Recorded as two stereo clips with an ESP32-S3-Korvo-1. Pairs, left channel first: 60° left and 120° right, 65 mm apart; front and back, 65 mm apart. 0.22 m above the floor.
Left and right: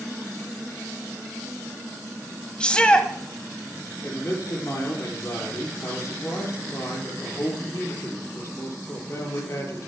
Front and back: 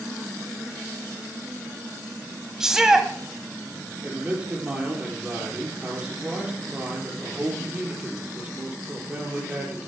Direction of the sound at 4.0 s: 110° left.